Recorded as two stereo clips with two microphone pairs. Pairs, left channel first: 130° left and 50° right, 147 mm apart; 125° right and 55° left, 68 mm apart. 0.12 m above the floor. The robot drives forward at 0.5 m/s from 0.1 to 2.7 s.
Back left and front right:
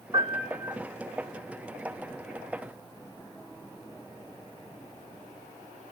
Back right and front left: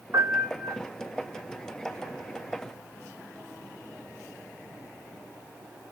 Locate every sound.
0.1 s a piano: 15° left, 1.8 m; by 0.8 s 20° left, 1.5 m